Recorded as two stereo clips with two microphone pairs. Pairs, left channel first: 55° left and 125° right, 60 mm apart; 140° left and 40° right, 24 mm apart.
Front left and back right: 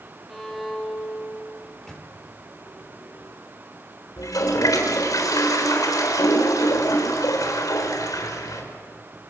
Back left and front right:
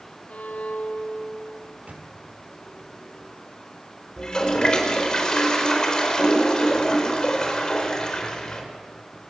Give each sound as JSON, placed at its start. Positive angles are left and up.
{"t": 0.3, "sound": "a violin", "azimuth_deg": 145, "distance_m": 3.5}
{"t": 1.6, "sound": "a microwave", "azimuth_deg": -25, "distance_m": 3.0}
{"t": 4.2, "sound": "a toilet flushing", "azimuth_deg": 75, "distance_m": 4.0}